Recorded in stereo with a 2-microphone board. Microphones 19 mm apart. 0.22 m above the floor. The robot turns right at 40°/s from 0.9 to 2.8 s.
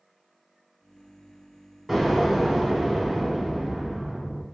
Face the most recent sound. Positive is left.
turn(degrees=-125)